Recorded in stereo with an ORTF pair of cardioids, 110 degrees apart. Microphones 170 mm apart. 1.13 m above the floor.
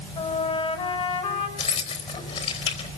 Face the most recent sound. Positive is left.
turn(degrees=40)